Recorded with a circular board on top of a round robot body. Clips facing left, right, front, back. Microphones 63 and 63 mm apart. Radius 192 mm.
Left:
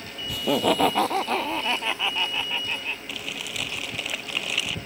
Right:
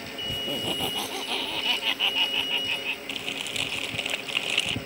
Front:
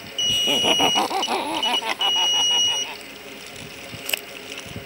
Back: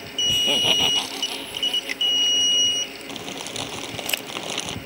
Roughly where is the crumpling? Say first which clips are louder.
Even, back 5 dB; behind.